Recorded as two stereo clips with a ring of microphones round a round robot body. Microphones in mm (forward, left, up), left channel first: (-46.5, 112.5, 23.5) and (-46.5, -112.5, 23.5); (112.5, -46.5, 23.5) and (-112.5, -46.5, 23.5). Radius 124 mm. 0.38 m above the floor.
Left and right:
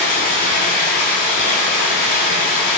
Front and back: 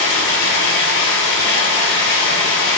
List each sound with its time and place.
0.0 s running water: 35° left, 1.3 m